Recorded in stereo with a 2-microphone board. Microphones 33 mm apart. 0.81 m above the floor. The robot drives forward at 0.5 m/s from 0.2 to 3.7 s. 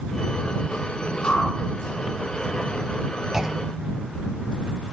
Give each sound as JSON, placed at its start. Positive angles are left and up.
{"t": 1.2, "sound": "a whoosh", "side_deg": 60, "distance_m": 7.5}
{"t": 3.3, "sound": "a clunk", "side_deg": -15, "distance_m": 1.2}